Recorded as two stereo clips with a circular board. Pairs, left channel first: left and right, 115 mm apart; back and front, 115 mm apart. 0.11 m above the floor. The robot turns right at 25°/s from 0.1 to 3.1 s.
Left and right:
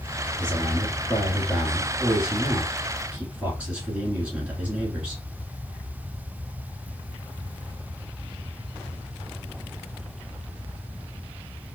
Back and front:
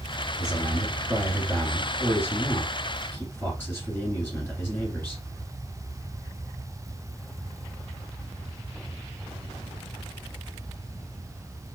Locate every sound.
0.4 s a man speaking: 150° left, 1.8 m; by 5.2 s 145° right, 1.8 m